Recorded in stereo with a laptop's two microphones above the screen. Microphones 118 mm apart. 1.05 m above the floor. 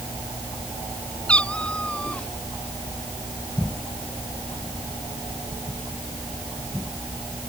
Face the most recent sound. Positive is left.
turn(degrees=10)  # may be behind; listen again after turning